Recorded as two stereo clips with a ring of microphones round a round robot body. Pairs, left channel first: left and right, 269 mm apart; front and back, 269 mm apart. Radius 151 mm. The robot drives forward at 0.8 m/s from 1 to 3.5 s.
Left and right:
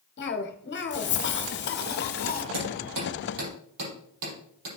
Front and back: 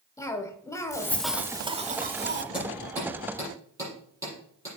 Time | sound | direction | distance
0.2 | a cough | 75° left | 1.1 m
2.5 | hammering | 95° right | 6 m